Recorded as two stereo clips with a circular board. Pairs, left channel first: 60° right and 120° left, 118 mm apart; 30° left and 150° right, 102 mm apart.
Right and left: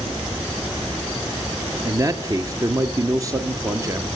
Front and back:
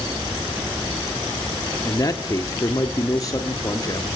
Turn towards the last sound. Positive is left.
turn(degrees=70)